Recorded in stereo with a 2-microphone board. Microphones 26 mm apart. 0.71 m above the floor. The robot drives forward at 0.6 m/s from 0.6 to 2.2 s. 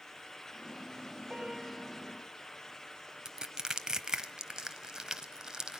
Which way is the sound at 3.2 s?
25° right (ahead or behind).